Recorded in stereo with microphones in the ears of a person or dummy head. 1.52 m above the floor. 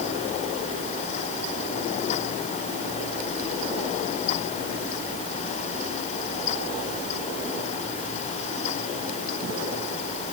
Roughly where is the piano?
No piano in this recording.